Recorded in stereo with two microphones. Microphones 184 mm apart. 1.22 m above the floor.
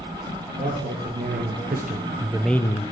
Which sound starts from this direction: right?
A man speaking, at 0.6 s.